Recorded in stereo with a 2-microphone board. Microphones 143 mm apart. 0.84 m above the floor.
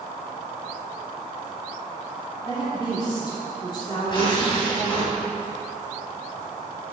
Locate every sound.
2.4 s a woman speaking: 30° left (ahead or behind), 2.5 m
4.1 s tearing paper: 35° left (ahead or behind), 3.5 m